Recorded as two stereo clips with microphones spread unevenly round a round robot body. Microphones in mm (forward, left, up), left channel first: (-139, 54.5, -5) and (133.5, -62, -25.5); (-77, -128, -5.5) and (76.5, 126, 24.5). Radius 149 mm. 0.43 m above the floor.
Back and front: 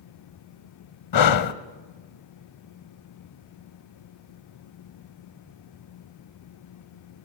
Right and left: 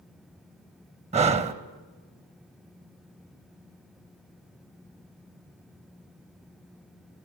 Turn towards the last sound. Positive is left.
turn(degrees=130)